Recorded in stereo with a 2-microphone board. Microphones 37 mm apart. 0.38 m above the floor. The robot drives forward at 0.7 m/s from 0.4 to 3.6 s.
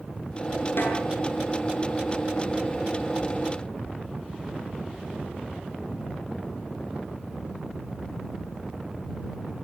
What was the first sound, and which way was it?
A snare drum, 70° left (ahead or behind).